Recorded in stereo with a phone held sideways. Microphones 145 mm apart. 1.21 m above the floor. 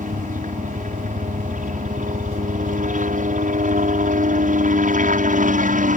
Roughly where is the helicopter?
Right.